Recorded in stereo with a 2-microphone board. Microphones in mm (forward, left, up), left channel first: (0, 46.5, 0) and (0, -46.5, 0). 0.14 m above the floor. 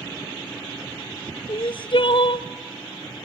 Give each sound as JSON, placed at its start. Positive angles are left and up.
{"t": 1.5, "sound": "crying", "side_deg": 65, "distance_m": 0.5}